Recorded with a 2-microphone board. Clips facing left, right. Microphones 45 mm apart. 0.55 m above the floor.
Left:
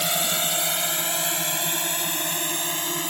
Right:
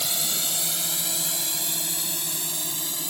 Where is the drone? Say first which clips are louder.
Left 5 dB; 40° left (ahead or behind); by 3.1 s 50° left (ahead or behind).